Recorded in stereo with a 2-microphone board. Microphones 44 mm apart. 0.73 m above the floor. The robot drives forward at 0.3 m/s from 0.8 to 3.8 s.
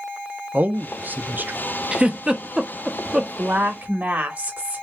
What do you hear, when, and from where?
0.5 s a man speaking: 40° right (ahead or behind), 0.7 m; by 1.6 s 45° right (ahead or behind), 0.6 m
1.9 s a giggle: 20° right (ahead or behind), 0.5 m; by 3.3 s 15° right (ahead or behind), 0.8 m
3.4 s a woman speaking: 35° right (ahead or behind), 1.6 m